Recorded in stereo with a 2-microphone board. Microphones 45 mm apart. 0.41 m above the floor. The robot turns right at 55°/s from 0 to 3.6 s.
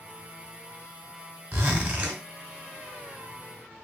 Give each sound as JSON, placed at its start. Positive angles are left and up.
{"t": 1.5, "sound": "a zipper", "azimuth_deg": -60, "distance_m": 0.8}